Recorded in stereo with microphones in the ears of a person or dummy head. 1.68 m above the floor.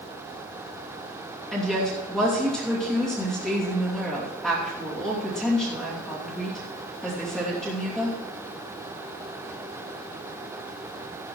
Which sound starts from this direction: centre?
A woman speaking, at 1.5 s.